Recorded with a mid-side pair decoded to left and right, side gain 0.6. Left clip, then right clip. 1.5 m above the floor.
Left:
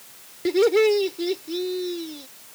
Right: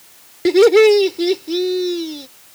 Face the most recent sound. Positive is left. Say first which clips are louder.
# right 8 dB
turn(degrees=-40)